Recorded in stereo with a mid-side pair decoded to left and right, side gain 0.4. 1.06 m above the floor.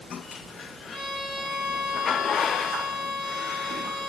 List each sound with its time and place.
0.9 s a violin: 35° left, 1.2 m